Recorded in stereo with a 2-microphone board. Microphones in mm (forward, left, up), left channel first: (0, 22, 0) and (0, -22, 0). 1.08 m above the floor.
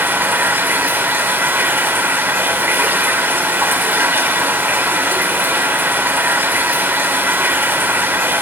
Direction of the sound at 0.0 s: 55° right (ahead or behind).